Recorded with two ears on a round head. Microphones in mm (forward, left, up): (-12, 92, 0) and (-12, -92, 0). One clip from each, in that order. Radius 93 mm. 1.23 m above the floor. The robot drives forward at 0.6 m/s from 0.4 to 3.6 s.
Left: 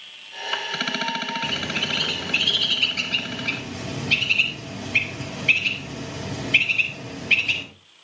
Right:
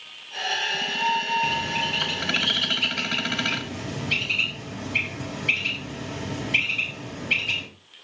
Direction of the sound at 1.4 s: 20° left (ahead or behind).